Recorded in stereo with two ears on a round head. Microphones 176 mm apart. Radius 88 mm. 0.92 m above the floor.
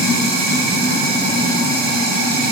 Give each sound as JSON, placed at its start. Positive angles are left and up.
{"t": 0.0, "sound": "running water", "side_deg": -50, "distance_m": 1.3}